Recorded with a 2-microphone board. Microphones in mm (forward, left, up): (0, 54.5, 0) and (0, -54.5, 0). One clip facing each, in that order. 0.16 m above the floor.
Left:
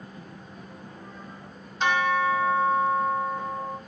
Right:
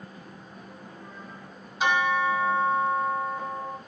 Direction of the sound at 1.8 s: 5° right (ahead or behind).